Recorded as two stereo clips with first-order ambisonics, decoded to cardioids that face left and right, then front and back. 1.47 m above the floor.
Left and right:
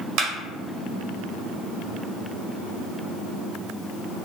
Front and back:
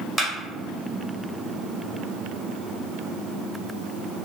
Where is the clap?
80° right, 0.7 m.